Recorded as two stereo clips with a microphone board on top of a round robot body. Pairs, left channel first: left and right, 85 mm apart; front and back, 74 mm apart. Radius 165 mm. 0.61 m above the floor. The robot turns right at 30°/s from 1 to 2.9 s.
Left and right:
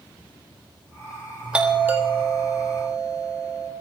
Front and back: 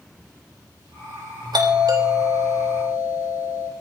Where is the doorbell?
165° right, 4 m; by 3.7 s 125° right, 4 m.